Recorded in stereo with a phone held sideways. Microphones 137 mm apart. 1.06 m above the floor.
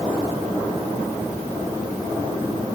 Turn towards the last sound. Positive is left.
No sound to turn to.